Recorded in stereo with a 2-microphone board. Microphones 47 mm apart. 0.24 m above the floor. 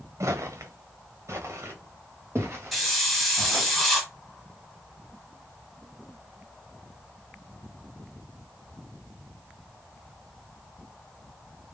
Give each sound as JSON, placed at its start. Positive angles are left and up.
{"t": 0.2, "sound": "footsteps", "side_deg": -75, "distance_m": 0.9}
{"t": 2.7, "sound": "a hiss", "side_deg": -5, "distance_m": 1.8}